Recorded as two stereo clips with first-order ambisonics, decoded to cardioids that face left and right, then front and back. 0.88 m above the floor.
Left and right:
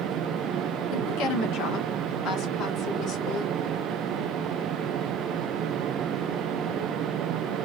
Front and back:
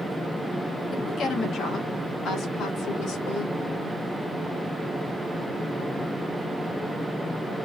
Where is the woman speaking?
65° left, 1.7 m; by 3.5 s 45° left, 3 m.